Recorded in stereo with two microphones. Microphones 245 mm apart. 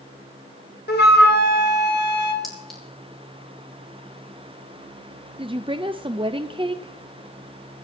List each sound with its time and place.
0.9 s a flute: 45° left (ahead or behind), 1.8 m
2.4 s a clink: centre (ahead or behind), 3.5 m
5.4 s a woman speaking: 20° right (ahead or behind), 0.5 m